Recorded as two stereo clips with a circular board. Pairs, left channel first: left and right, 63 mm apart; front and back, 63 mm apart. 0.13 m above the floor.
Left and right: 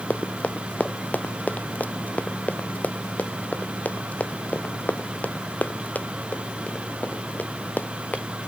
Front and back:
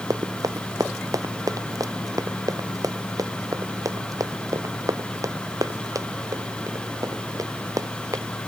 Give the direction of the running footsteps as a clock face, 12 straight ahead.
7 o'clock.